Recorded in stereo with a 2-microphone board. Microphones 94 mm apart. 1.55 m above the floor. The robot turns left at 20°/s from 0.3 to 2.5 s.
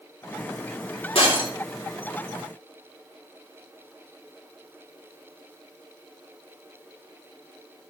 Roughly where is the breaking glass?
Left.